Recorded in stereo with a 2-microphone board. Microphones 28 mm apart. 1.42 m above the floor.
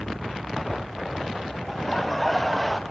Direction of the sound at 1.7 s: 5° left (ahead or behind).